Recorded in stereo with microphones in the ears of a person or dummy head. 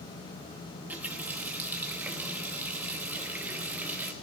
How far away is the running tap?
About 1.0 m.